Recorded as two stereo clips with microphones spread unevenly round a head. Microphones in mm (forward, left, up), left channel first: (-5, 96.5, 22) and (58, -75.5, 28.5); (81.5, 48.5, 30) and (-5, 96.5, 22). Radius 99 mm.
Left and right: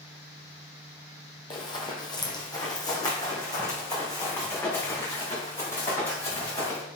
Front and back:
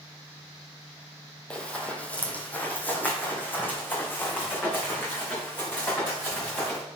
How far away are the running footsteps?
About 1.8 m.